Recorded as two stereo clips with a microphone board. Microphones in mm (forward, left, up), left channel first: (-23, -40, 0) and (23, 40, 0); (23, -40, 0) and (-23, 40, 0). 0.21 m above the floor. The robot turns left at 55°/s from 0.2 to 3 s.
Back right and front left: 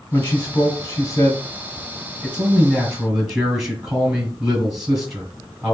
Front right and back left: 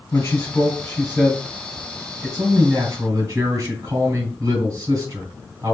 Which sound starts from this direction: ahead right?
A man speaking, at 0.1 s.